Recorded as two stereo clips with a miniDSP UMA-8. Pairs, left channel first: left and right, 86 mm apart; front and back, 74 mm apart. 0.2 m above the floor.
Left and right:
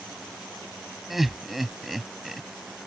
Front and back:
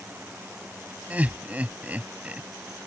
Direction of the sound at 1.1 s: 170° right.